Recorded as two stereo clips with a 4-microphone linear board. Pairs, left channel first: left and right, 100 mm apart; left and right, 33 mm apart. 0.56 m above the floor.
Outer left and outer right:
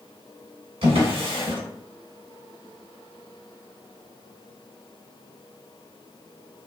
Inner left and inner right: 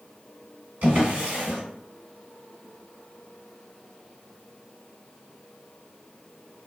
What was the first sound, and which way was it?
A drawer, 70° right (ahead or behind).